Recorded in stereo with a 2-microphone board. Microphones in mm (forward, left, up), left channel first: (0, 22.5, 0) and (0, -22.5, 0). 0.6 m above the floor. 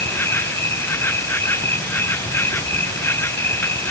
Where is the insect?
60° left (ahead or behind).